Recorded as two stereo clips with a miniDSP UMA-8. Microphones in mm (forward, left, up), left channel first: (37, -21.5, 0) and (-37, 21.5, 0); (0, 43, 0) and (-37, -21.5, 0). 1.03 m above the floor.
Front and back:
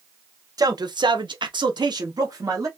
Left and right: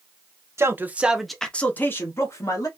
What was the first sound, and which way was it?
A man speaking, 170° right.